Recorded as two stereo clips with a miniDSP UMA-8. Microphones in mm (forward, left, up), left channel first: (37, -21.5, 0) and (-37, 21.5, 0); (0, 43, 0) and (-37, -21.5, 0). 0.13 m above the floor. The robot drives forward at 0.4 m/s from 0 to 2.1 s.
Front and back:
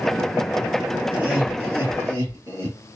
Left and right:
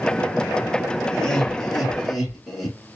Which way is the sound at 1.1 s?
115° left.